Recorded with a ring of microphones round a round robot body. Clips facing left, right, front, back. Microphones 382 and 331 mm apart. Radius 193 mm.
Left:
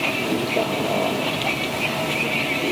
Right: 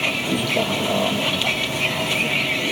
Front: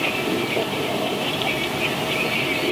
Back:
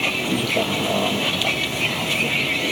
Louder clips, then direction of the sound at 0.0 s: Left 1 dB, front 1 dB; 140° right.